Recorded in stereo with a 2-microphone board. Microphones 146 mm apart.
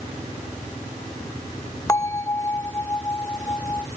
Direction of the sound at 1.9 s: 20° left (ahead or behind).